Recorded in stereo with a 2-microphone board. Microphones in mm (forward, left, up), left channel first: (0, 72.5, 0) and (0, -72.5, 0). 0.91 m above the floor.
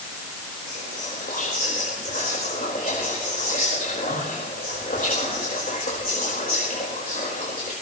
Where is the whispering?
80° left, 4 m.